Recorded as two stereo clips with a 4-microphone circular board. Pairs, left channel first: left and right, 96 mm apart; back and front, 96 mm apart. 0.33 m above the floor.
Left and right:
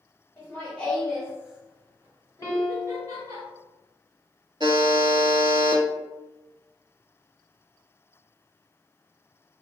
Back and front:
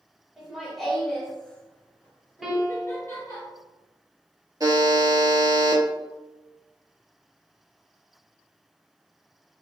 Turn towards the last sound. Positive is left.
turn(degrees=-50)